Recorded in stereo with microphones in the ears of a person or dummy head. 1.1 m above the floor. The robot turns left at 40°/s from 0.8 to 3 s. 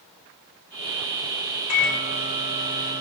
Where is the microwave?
100° left, 4.5 m; by 3.0 s 50° left, 4.5 m.